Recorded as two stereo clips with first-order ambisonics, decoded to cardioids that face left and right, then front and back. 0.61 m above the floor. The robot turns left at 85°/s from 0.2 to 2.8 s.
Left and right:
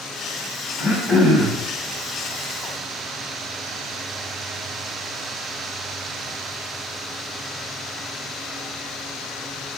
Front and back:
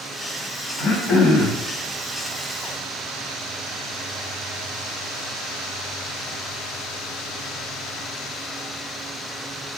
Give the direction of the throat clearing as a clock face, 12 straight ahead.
11 o'clock.